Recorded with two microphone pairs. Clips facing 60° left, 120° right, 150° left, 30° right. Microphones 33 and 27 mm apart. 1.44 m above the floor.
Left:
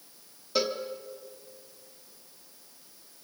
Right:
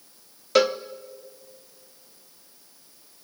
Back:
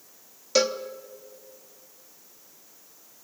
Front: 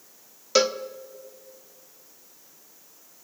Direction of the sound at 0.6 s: 105° right.